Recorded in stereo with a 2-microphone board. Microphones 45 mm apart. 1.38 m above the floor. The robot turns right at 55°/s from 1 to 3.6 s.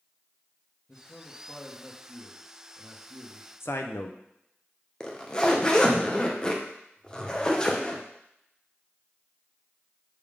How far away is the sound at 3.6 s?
About 0.7 m.